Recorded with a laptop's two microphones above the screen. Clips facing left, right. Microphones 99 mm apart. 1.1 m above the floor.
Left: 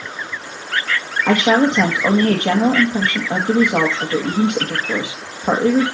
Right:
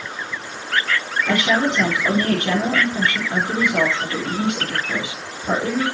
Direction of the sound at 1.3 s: 70° left (ahead or behind).